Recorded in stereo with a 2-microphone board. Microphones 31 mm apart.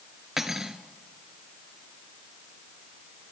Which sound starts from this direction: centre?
Cutlery clinking, at 0.4 s.